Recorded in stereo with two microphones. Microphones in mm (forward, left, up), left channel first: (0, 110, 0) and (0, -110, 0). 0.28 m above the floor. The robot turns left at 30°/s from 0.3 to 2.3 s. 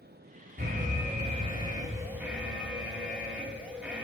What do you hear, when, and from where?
0.6 s an alarm: 120° right, 3.5 m; by 4.0 s 175° right, 3.5 m